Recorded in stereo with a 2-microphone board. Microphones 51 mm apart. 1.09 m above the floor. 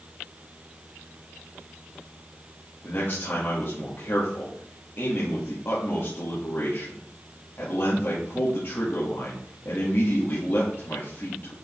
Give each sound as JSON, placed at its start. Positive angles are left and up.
{"t": 2.8, "sound": "a man speaking", "side_deg": 40, "distance_m": 2.0}